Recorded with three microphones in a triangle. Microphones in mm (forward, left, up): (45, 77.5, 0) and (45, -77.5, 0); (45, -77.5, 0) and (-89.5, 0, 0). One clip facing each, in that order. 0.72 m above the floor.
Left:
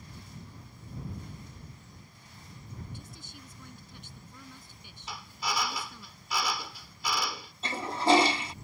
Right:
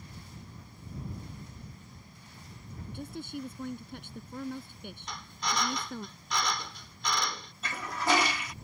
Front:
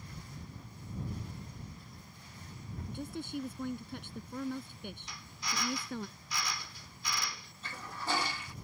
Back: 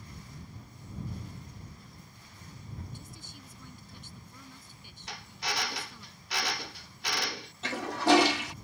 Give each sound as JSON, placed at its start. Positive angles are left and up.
{"t": 2.9, "sound": "a woman speaking", "azimuth_deg": -60}
{"t": 5.1, "sound": "a drill", "azimuth_deg": 175}
{"t": 7.6, "sound": "a toilet flushing", "azimuth_deg": 150}